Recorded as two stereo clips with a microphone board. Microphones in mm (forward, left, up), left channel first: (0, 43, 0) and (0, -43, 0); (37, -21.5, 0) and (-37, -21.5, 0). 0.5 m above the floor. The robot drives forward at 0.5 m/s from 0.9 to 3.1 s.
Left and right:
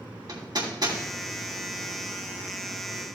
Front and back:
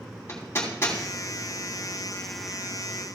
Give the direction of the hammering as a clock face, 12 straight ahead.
2 o'clock.